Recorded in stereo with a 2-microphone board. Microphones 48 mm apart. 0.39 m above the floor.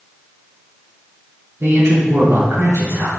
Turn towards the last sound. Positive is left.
turn(degrees=-70)  # may be behind; listen again after turning